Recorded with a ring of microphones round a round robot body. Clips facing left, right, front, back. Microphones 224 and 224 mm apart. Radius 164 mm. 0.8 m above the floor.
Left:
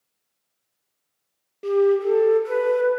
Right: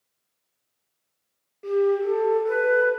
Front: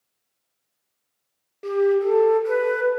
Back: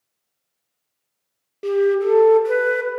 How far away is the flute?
About 0.7 m.